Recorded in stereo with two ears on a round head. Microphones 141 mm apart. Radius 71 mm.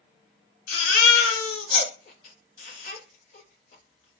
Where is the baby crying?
60° left (ahead or behind), 1.6 m.